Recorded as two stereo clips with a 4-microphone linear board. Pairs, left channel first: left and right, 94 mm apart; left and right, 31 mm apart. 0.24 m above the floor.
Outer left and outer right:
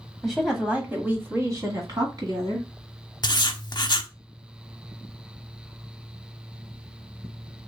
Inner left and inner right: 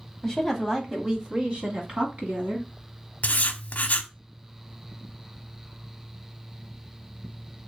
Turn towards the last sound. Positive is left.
turn(degrees=50)  # may be behind; listen again after turning